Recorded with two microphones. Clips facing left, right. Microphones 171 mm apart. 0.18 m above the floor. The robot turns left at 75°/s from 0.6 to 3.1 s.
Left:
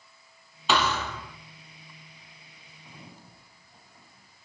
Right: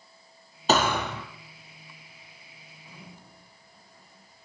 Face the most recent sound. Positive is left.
turn(degrees=30)  # may be behind; listen again after turning